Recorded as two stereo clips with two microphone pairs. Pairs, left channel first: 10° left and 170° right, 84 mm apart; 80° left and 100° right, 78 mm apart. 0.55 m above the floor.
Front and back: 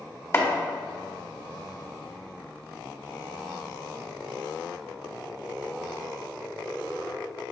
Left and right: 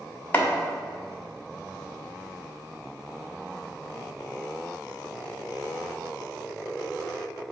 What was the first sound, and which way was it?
Chopping, 35° left.